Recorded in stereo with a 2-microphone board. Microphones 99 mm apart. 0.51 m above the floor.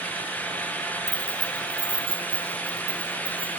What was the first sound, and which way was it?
Keys jangling, 50° right (ahead or behind).